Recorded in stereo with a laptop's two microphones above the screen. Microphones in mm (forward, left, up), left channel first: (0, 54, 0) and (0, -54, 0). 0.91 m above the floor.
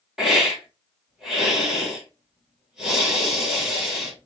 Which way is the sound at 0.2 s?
5° right (ahead or behind).